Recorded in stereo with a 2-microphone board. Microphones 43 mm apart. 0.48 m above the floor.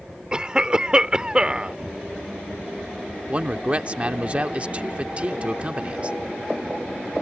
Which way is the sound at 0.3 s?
20° right (ahead or behind).